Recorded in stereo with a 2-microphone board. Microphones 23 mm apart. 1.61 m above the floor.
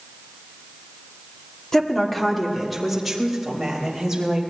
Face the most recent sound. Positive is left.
turn(degrees=-15)  # may be behind; listen again after turning